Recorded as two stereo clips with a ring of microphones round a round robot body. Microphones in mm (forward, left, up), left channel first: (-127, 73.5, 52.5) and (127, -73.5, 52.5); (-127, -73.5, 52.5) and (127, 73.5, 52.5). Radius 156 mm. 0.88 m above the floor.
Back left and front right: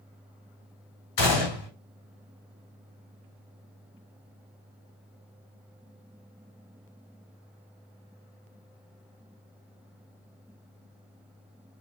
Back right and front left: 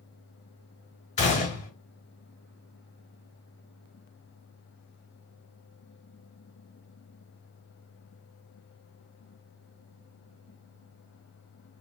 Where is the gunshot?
140° left, 1.6 m.